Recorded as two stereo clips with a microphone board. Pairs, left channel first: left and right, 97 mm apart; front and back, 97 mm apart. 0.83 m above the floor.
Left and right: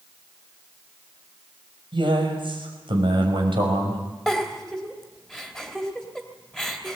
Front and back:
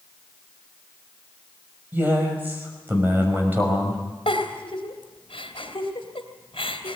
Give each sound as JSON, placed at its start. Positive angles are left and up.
{"t": 1.9, "sound": "a man speaking", "azimuth_deg": -110, "distance_m": 6.0}
{"t": 4.3, "sound": "a giggle", "azimuth_deg": 0, "distance_m": 2.5}